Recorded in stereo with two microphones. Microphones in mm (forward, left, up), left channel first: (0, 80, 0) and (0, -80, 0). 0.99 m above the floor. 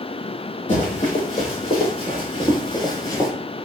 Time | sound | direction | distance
0.7 | running footsteps | 45° left (ahead or behind) | 1.7 m